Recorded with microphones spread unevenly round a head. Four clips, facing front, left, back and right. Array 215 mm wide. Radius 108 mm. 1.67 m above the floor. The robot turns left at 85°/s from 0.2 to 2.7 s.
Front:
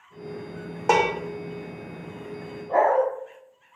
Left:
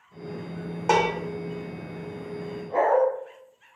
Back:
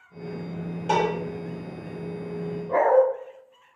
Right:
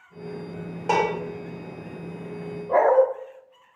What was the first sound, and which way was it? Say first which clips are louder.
Dishes clattering: even, front 2 dB; 10° right.